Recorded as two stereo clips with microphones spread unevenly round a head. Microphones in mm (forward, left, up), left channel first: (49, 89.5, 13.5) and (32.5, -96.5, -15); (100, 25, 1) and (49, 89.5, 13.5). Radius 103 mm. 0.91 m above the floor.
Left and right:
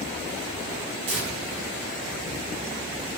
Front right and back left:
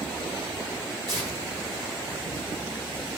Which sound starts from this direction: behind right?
Tearing paper, at 1.1 s.